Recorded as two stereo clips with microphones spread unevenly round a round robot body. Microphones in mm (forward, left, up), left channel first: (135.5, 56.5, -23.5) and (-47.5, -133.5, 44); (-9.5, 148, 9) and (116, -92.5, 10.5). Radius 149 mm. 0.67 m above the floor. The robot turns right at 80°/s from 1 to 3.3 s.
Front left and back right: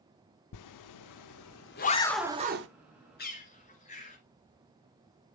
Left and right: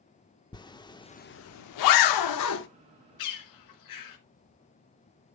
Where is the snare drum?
No snare drum in this recording.